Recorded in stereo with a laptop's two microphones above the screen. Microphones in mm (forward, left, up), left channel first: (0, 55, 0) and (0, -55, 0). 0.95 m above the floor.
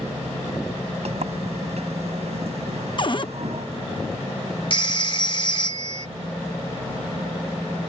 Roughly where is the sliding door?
Right.